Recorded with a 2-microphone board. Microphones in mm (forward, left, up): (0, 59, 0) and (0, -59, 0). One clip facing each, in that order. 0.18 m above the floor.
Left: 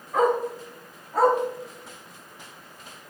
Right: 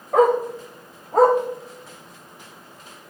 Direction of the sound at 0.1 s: 60° right (ahead or behind).